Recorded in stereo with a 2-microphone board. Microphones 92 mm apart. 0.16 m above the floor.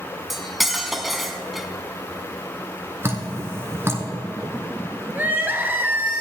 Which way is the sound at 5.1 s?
20° right (ahead or behind).